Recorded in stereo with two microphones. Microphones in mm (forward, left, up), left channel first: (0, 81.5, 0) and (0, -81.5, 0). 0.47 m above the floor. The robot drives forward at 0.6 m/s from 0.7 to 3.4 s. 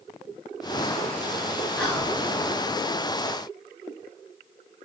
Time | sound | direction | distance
1.8 | whispering | 5° left (ahead or behind) | 1.6 m